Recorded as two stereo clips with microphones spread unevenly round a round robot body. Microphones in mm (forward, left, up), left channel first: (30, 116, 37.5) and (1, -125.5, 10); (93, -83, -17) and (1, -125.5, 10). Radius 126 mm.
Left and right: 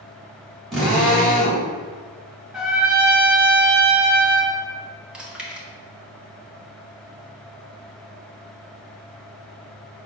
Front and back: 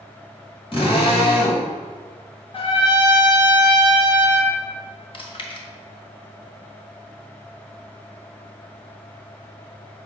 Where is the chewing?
10° right, 1.6 m.